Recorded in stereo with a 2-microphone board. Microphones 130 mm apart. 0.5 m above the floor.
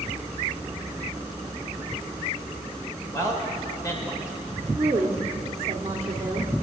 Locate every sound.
3.1 s a man speaking: 25° left (ahead or behind), 2 m
4.8 s a woman speaking: 25° right (ahead or behind), 1.3 m